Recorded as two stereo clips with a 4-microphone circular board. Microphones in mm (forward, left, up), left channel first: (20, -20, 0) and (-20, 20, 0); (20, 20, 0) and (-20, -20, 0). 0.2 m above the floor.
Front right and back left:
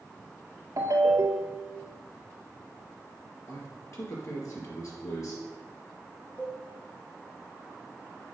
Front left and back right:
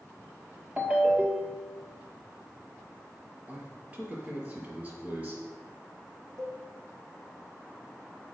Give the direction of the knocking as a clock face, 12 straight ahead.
I don't hear knocking.